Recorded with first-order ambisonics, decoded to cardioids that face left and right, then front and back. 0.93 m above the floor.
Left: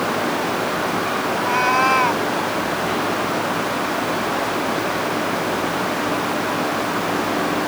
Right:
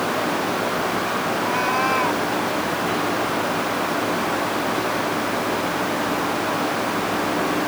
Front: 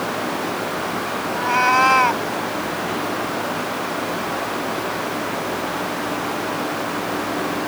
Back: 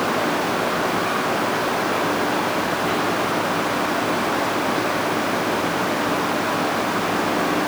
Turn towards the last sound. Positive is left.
turn(degrees=20)